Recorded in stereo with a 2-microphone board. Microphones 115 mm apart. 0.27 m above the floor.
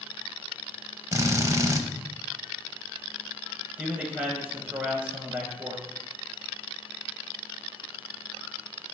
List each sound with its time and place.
1.1 s a drill: 30° right (ahead or behind), 0.6 m
3.8 s a man speaking: 10° right (ahead or behind), 1.1 m